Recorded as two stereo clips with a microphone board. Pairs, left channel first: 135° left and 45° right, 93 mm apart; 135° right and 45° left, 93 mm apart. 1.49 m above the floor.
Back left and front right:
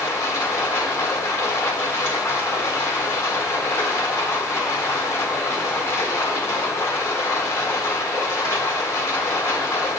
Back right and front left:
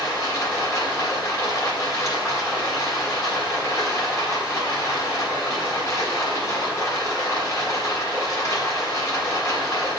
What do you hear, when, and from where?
0.0 s running water: 175° right, 1.5 m